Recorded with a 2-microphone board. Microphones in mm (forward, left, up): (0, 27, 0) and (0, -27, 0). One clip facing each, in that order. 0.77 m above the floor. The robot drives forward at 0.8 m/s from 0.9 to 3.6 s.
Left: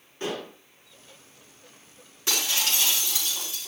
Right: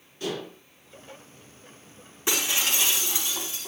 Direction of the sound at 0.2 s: 35° left (ahead or behind).